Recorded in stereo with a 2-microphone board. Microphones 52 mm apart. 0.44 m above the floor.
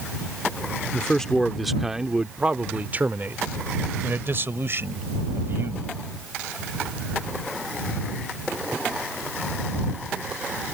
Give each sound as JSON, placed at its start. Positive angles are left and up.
{"t": 0.9, "sound": "a man speaking", "side_deg": 20}